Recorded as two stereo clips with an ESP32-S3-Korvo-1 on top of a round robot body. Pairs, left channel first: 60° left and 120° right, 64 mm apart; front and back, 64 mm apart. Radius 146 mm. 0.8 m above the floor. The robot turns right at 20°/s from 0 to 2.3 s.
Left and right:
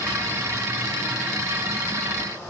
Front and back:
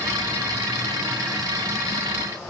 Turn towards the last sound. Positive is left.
No sound to turn to.